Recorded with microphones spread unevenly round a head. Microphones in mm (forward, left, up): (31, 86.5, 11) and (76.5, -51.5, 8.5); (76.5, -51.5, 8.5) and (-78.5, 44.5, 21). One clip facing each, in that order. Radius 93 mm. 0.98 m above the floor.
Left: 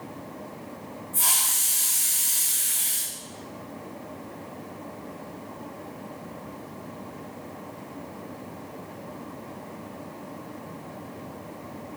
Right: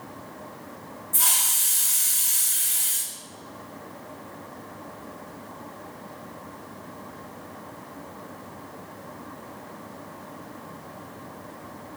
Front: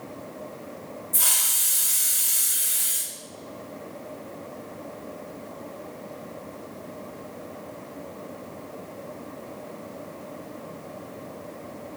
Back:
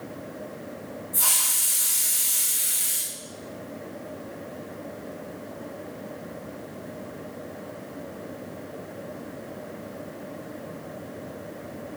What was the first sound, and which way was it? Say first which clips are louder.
A hiss: right 2 dB, back 2 dB; 90° right.